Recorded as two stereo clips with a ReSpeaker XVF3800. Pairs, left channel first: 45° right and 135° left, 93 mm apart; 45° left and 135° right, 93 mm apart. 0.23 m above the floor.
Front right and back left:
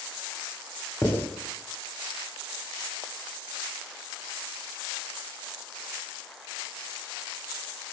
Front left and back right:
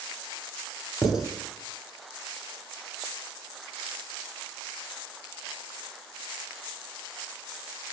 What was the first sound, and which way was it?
Writing, 55° right.